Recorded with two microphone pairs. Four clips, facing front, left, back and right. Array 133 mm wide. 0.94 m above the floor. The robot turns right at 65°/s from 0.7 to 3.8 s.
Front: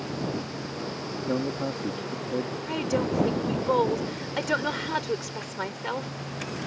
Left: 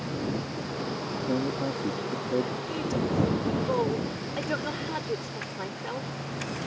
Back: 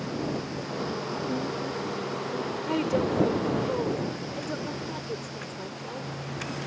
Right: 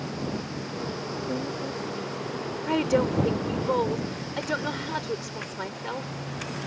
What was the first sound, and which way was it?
A man speaking, 10° right.